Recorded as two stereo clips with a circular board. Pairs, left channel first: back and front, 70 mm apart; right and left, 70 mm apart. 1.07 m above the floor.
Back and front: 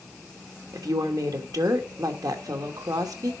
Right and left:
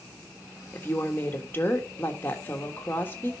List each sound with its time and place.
0.7 s a woman speaking: 30° right, 1.4 m